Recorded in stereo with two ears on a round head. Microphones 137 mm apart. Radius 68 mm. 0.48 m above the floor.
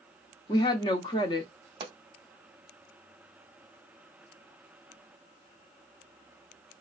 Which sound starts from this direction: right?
A pop, at 1.8 s.